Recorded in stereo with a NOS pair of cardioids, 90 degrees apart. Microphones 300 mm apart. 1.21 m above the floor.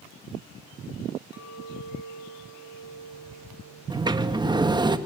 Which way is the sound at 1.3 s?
55° left.